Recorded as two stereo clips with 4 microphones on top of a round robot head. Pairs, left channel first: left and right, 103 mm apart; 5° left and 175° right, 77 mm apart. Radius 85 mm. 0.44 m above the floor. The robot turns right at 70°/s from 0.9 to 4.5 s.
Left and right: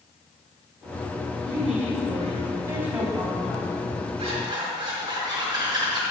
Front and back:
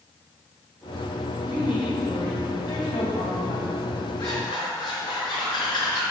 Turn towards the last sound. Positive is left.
turn(degrees=-40)